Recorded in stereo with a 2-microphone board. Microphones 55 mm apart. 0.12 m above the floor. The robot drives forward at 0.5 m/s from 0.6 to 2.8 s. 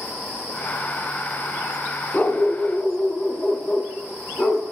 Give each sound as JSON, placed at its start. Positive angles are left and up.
{"t": 2.1, "sound": "a dog barking", "side_deg": 30, "distance_m": 2.5}